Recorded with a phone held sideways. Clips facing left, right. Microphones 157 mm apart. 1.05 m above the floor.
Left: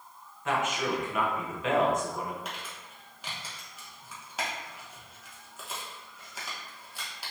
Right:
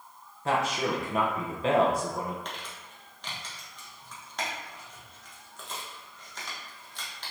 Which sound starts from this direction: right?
A man speaking, at 0.5 s.